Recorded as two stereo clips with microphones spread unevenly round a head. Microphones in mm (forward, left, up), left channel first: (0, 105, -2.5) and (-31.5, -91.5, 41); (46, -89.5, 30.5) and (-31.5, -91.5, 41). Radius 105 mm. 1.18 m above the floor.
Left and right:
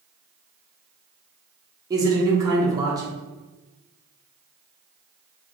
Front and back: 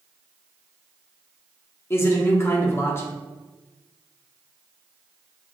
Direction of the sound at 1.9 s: 20° right.